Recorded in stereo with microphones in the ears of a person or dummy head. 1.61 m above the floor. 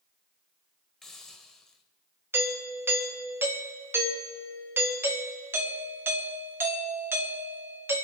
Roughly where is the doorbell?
Centre.